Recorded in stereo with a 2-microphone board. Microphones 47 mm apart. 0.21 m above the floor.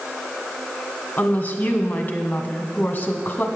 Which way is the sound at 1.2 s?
40° left (ahead or behind).